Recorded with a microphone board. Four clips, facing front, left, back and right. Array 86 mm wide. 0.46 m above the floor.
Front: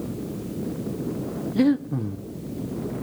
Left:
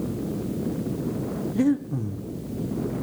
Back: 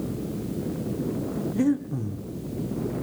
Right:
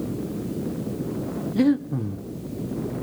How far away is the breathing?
About 0.6 m.